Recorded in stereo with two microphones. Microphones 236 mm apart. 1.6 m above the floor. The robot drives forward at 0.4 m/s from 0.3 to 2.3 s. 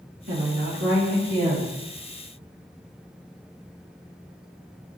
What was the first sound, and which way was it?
A woman speaking, 75° right (ahead or behind).